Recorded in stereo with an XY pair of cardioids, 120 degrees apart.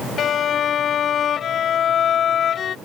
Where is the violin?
50° left.